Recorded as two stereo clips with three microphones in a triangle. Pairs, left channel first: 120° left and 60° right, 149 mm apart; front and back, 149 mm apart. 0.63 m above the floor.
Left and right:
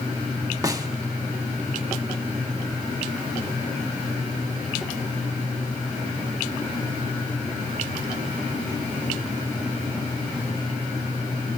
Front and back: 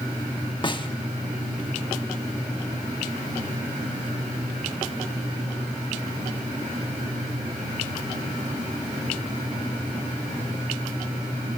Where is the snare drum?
15° right, 1.0 m.